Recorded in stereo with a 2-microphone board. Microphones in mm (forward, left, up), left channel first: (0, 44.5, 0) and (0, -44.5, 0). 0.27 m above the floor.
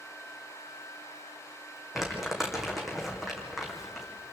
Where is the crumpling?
5° right (ahead or behind), 3 m.